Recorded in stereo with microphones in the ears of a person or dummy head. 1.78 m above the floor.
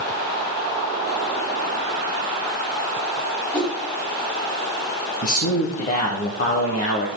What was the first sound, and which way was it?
A whoosh, 10° left (ahead or behind).